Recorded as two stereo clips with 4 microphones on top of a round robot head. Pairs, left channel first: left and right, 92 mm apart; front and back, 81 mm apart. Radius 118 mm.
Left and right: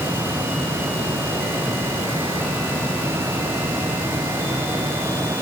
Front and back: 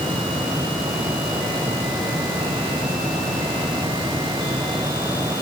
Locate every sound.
Only background noise.